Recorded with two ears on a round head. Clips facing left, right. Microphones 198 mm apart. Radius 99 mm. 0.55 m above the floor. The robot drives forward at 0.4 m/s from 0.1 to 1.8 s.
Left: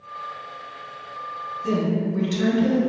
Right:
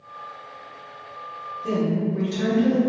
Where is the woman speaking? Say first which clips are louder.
Even; 20° left (ahead or behind), 1.0 m.